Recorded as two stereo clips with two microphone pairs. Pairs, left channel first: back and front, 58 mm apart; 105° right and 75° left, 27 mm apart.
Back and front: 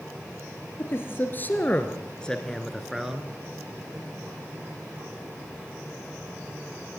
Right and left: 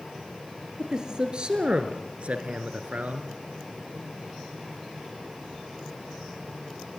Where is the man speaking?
135° left, 3.5 m; by 3.3 s 75° left, 3 m.